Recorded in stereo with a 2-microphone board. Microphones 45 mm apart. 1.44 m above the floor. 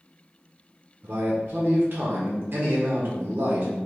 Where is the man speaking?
60° right (ahead or behind), 0.7 m.